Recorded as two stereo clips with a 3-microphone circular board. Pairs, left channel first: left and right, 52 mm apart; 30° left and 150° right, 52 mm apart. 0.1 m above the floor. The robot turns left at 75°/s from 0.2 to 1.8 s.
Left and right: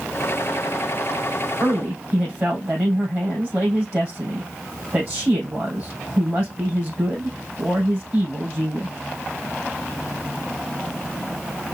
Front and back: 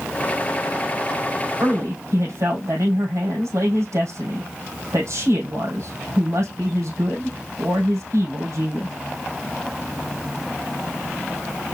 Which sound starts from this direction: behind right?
A man speaking, at 1.6 s.